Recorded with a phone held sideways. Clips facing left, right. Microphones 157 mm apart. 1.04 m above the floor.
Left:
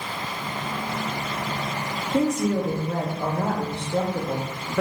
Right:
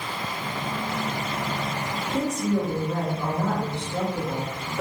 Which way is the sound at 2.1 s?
65° left (ahead or behind).